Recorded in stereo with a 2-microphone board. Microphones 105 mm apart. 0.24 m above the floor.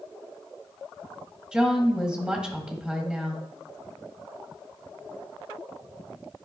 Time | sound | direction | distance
1.5 | a woman speaking | 10° right (ahead or behind) | 1.5 m